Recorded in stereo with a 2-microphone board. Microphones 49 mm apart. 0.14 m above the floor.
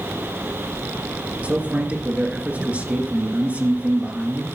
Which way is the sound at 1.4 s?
30° right (ahead or behind).